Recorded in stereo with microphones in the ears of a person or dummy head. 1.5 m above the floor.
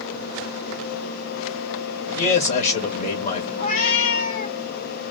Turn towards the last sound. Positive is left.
turn(degrees=50)  # may be behind; listen again after turning